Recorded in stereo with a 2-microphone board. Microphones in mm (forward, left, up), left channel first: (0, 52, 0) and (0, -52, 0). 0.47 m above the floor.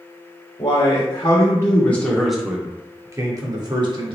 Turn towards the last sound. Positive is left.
turn(degrees=-50)  # may be behind; listen again after turning